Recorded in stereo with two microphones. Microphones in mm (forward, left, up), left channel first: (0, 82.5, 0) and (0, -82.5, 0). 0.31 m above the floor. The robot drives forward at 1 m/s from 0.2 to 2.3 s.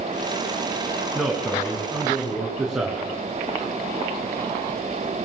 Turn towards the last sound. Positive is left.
turn(degrees=-5)  # may be behind; listen again after turning